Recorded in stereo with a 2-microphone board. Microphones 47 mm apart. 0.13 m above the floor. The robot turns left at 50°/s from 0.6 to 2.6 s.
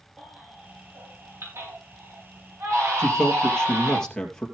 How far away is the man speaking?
About 2.5 m.